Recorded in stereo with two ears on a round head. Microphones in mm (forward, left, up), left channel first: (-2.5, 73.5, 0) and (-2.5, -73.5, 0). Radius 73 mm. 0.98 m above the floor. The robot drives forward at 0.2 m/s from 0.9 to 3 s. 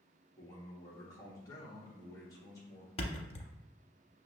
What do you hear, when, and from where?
0.4 s a man speaking: 25° left (ahead or behind), 1.3 m; by 2.9 s 20° left (ahead or behind), 1.6 m
3.0 s a thud: 35° left (ahead or behind), 0.6 m